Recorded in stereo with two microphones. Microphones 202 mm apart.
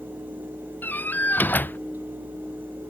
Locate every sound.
0.8 s a door slam: 10° left (ahead or behind)